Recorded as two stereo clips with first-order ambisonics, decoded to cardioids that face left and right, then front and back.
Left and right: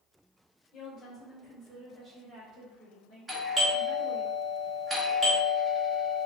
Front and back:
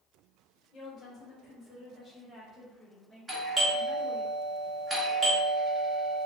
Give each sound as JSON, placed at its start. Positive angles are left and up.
{"t": 0.7, "sound": "a woman speaking", "azimuth_deg": 55, "distance_m": 1.0}
{"t": 3.3, "sound": "a doorbell", "azimuth_deg": -140, "distance_m": 0.7}